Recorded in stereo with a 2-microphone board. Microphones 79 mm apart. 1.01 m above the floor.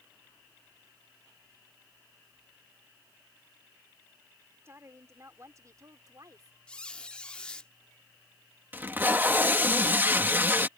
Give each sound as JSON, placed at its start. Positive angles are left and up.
{"t": 4.7, "sound": "a woman speaking", "side_deg": -35}
{"t": 6.7, "sound": "a squeak", "side_deg": 10}
{"t": 8.7, "sound": "tape being pulled", "side_deg": -25}